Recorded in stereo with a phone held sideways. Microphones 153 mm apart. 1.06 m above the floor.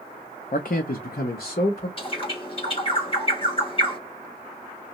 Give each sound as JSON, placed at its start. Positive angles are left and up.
{"t": 0.5, "sound": "a man speaking", "side_deg": 60, "distance_m": 0.5}
{"t": 2.0, "sound": "a bird", "side_deg": 35, "distance_m": 1.4}